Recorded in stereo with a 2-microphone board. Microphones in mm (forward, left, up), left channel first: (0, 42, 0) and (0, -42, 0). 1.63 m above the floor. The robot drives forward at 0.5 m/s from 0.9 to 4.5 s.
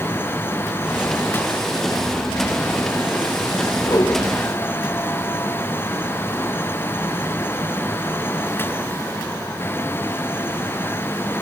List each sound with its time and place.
3.8 s a whoosh: 65° left (ahead or behind), 4.5 m; by 4.2 s 60° left (ahead or behind), 4.5 m